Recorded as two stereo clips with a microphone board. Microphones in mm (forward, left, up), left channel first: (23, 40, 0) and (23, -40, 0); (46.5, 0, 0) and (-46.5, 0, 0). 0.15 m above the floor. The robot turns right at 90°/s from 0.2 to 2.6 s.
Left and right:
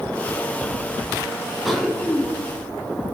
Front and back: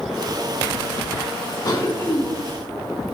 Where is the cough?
5° right, 2.5 m; by 2.3 s 50° left, 2.5 m.